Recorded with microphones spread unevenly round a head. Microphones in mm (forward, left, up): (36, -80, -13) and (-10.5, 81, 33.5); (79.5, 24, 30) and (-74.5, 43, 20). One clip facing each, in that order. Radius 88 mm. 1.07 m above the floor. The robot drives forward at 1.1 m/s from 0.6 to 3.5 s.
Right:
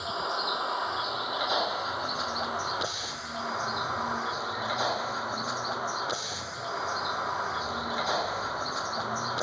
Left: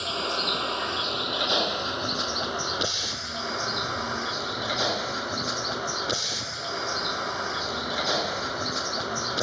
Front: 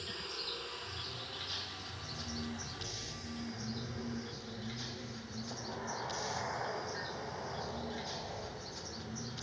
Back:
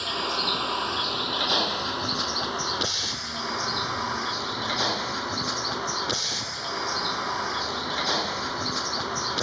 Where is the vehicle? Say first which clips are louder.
Left 3 dB, back 15 dB; 160° left; by 9.4 s 165° left.